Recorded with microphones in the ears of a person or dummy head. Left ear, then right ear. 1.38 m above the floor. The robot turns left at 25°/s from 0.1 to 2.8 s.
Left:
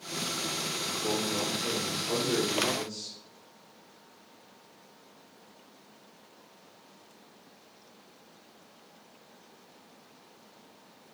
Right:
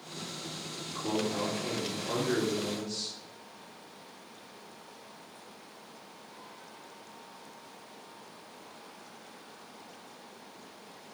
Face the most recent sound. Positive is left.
turn(degrees=-40)